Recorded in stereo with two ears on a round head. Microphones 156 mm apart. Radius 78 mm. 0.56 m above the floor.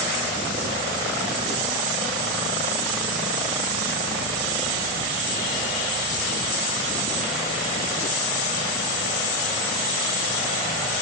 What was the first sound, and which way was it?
Only background noise.